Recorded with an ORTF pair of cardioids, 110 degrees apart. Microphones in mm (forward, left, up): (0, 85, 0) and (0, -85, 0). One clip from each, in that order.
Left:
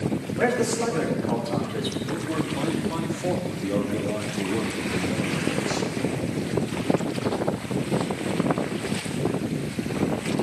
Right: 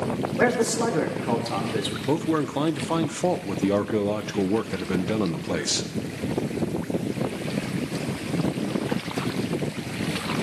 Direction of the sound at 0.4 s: 35° right.